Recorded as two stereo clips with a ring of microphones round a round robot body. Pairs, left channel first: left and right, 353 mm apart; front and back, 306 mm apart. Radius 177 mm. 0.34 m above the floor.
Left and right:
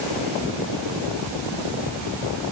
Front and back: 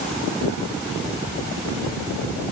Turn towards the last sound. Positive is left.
No sound to turn to.